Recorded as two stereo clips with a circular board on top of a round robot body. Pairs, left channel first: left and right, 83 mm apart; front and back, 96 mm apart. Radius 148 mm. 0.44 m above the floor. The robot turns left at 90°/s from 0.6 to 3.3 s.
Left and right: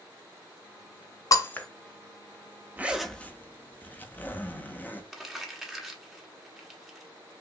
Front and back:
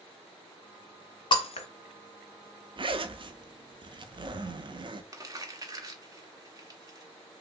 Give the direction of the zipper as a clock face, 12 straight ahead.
5 o'clock.